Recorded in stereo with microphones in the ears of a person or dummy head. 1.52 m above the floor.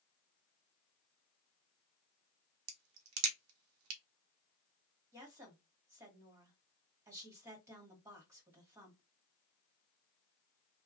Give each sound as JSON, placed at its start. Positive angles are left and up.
{"t": 2.7, "sound": "a crack", "side_deg": -85, "distance_m": 0.9}
{"t": 5.1, "sound": "a woman speaking", "side_deg": -20, "distance_m": 1.4}